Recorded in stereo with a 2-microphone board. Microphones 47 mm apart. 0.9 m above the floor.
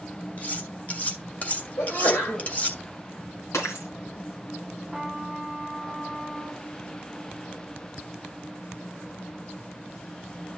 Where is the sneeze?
60° left (ahead or behind), 3.5 m.